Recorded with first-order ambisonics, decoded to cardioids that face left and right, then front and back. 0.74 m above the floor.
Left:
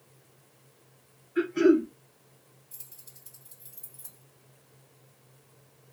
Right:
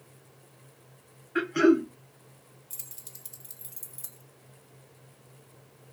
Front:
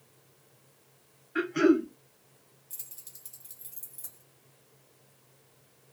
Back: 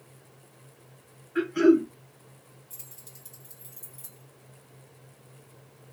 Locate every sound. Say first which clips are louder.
1.4 s throat clearing: even, back 3 dB; 80° right, 0.8 m
2.7 s keys jangling: right 7 dB, front 1 dB; 85° right, 0.9 m